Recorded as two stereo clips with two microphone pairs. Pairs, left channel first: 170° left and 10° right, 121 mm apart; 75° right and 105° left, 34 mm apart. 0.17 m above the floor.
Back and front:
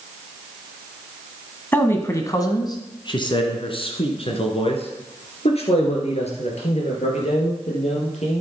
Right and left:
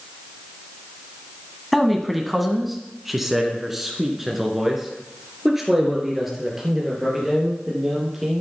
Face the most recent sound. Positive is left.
turn(degrees=-175)